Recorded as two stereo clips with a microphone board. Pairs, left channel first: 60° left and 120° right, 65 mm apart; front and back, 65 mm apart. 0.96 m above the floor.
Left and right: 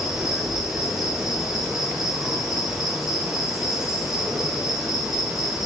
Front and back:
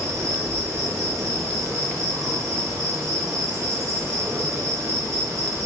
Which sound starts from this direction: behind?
An insect, at 0.0 s.